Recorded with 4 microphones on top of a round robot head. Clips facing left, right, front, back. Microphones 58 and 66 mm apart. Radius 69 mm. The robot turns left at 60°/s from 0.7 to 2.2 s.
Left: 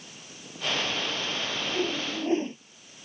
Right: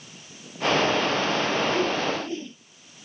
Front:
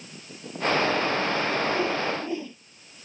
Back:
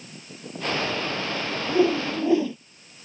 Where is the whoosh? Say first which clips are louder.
Right 6 dB, back 4 dB; 170° right; by 2.6 s 160° left.